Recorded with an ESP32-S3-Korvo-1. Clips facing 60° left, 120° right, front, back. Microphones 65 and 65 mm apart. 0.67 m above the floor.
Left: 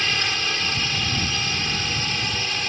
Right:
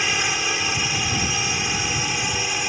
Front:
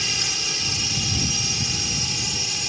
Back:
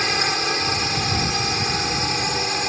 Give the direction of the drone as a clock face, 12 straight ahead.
6 o'clock.